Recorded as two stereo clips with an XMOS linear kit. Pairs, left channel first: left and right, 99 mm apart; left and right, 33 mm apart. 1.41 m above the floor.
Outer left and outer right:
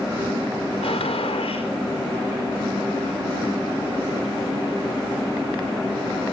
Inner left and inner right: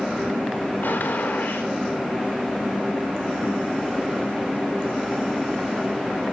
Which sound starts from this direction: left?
A gunshot, at 0.8 s.